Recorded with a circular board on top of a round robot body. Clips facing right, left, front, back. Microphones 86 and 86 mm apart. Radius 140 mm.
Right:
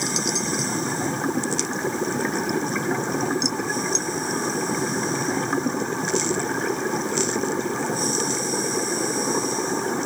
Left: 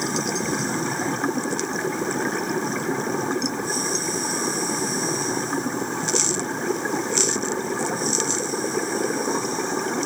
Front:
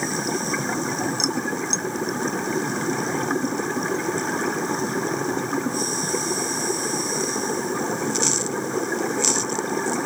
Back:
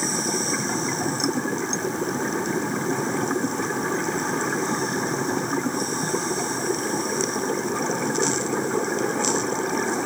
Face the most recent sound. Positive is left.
No sound to turn to.